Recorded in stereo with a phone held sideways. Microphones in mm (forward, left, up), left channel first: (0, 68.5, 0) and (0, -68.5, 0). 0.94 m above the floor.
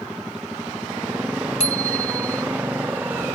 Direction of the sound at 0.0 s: 5° right (ahead or behind).